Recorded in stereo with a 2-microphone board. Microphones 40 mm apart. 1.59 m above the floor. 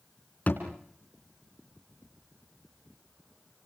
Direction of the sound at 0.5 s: 45° left (ahead or behind).